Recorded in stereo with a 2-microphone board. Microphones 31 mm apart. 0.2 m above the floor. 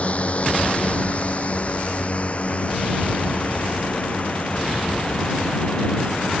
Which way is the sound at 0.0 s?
40° left (ahead or behind).